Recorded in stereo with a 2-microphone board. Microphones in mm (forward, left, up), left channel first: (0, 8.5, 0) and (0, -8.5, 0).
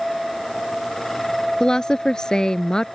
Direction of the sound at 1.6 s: 50° left (ahead or behind).